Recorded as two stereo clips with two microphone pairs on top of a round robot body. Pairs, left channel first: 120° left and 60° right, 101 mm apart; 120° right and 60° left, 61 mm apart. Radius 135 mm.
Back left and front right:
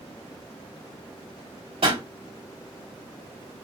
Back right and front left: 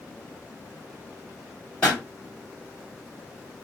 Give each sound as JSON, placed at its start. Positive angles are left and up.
{"t": 1.8, "sound": "a pop", "azimuth_deg": -45, "distance_m": 3.5}